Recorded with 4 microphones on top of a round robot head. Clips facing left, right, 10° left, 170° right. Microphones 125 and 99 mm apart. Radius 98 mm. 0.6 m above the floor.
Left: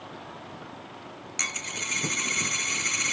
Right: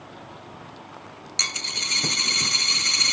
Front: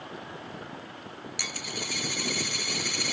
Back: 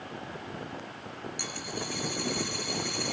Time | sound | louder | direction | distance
1.4 | a dropped coin | right 2 dB, even | 30° right | 0.7 m